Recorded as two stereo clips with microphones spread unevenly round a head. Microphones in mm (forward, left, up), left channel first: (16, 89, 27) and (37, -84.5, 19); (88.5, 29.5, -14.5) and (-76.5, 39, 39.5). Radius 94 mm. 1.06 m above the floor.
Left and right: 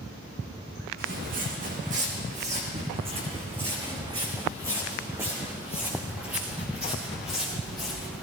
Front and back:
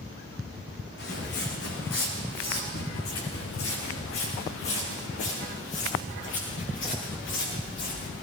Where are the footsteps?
50° right, 4 m; by 8.2 s 5° left, 7.5 m.